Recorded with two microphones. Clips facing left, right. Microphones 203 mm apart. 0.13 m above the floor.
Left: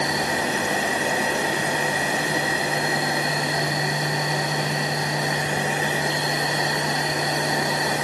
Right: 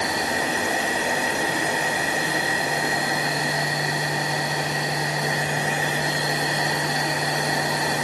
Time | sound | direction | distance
0.0 | an insect | 45° left (ahead or behind) | 7.5 m